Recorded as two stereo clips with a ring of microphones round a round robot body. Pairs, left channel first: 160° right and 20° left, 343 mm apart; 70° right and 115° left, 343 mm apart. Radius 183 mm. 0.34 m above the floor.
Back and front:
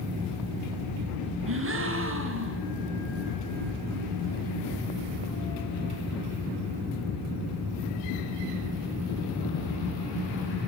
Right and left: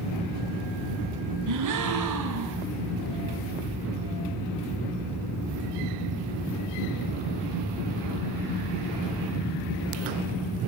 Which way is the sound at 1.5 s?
75° left.